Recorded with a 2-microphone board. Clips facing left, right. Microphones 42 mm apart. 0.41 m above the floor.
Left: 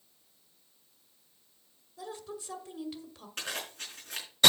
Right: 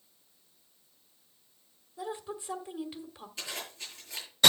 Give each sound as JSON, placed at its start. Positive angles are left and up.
{"t": 2.0, "sound": "a woman speaking", "side_deg": -20, "distance_m": 1.6}
{"t": 3.4, "sound": "a zipper", "side_deg": 70, "distance_m": 4.0}